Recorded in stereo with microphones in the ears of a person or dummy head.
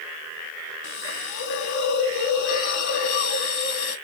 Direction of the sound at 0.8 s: 75° left (ahead or behind).